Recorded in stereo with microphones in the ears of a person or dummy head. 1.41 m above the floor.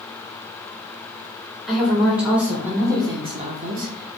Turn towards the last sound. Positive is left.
turn(degrees=-65)  # may be behind; listen again after turning